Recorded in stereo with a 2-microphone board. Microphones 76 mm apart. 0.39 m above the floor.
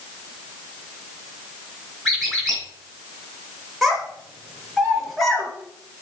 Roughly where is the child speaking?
Centre.